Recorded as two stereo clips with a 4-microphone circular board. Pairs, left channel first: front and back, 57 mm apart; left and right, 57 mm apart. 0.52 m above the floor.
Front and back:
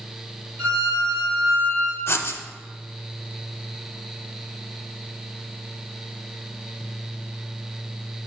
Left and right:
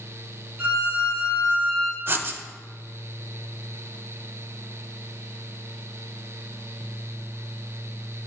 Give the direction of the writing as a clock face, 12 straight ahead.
1 o'clock.